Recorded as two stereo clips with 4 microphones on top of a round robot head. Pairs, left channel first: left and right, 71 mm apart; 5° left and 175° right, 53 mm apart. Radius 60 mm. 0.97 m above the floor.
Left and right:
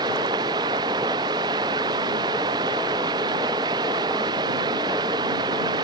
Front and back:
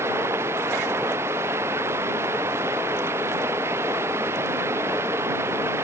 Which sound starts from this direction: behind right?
Running water, at 0.0 s.